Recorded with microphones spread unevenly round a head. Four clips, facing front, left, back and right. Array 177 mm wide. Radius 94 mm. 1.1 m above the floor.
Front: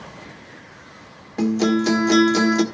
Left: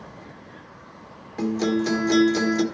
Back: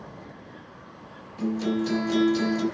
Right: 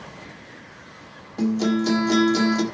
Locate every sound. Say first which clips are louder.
1.4 s a guitar: right 1 dB, front 7 dB; 10° right, 1.6 m